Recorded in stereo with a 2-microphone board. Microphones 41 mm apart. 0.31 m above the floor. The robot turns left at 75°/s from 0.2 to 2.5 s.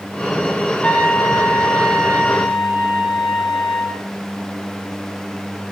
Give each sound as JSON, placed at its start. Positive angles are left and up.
{"t": 0.8, "sound": "a trumpet", "azimuth_deg": 35, "distance_m": 8.5}